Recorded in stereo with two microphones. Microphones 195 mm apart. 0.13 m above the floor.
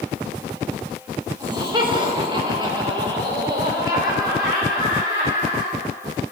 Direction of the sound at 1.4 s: 20° right (ahead or behind).